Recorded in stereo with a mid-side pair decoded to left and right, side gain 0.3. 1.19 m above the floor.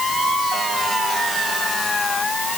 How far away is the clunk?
I don't hear a clunk.